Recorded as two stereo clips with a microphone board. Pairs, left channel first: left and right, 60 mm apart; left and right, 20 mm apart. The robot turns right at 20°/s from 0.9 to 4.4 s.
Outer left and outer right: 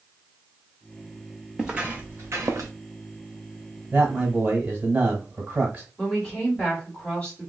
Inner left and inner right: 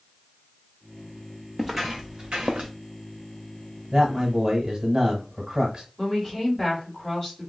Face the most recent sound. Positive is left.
turn(degrees=20)  # may be behind; listen again after turning